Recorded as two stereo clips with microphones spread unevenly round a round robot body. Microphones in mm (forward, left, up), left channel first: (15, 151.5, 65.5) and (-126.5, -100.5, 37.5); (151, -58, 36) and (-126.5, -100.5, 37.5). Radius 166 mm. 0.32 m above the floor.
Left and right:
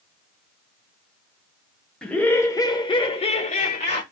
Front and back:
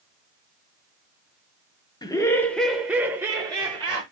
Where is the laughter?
35° right, 0.9 m; by 4.0 s 125° left, 1.1 m.